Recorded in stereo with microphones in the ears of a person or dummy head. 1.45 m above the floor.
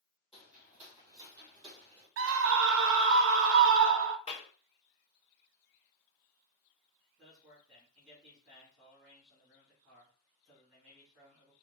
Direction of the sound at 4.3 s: 30° left (ahead or behind).